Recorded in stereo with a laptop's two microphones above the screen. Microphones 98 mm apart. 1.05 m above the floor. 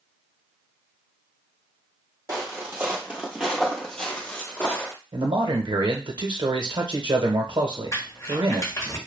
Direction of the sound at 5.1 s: 60° right (ahead or behind).